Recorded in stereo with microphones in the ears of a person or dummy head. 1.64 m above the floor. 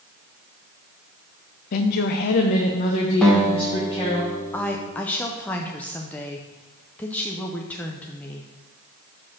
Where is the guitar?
5° left (ahead or behind), 1.6 m.